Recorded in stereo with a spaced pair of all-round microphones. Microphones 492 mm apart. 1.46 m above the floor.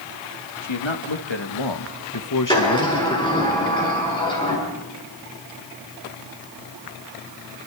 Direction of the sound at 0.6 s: 70° left (ahead or behind).